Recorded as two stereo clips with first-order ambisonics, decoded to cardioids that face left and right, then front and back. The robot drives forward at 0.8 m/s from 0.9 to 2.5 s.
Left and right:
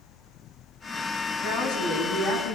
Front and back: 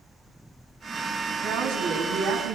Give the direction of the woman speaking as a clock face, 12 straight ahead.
7 o'clock.